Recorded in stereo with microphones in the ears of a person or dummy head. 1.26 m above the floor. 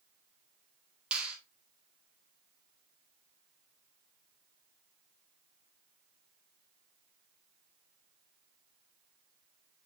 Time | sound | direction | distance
1.1 | a finger snap | 10° right (ahead or behind) | 1.8 m